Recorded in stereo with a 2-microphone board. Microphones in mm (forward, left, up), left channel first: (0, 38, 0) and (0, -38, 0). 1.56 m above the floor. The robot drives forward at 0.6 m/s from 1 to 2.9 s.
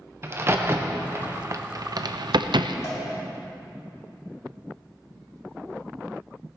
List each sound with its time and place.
0.2 s a crack: 30° right (ahead or behind), 1.1 m; by 2.7 s 70° right (ahead or behind), 0.6 m
2.8 s a cowbell: 35° left (ahead or behind), 2.5 m; by 3.0 s 40° left (ahead or behind), 2.5 m